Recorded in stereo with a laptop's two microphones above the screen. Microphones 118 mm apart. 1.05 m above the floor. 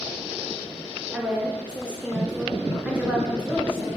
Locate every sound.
1.1 s a woman speaking: 10° right (ahead or behind), 0.7 m